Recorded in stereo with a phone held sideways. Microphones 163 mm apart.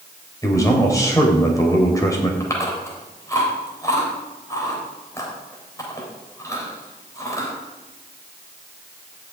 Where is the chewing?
20° left (ahead or behind), 3.5 m.